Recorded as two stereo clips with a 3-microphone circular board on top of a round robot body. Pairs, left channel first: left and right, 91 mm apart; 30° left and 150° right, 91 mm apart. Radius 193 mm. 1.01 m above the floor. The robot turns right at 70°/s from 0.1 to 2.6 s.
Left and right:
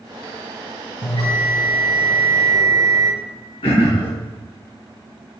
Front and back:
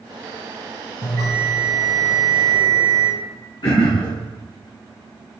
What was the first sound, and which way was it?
A bell, 70° left.